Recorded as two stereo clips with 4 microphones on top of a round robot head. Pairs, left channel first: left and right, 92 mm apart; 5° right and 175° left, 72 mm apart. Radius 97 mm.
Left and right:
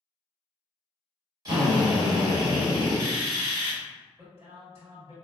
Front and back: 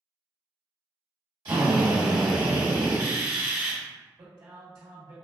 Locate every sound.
1.4 s a drill: 135° right, 1.5 m
4.2 s a man speaking: 145° right, 1.4 m